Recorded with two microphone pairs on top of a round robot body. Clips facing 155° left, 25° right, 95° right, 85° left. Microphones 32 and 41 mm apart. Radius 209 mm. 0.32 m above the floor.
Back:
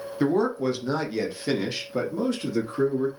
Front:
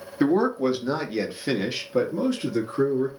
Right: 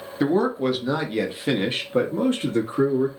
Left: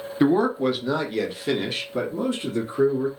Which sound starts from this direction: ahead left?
A man speaking, at 0.2 s.